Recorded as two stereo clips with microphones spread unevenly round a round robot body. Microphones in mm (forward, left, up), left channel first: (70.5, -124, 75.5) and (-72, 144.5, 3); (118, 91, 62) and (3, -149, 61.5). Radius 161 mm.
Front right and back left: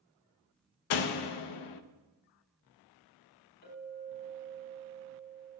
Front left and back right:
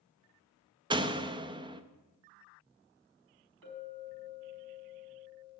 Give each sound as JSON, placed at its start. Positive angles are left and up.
{"t": 0.9, "sound": "a door slam", "azimuth_deg": -40, "distance_m": 0.7}
{"t": 3.6, "sound": "a clink", "azimuth_deg": -120, "distance_m": 4.5}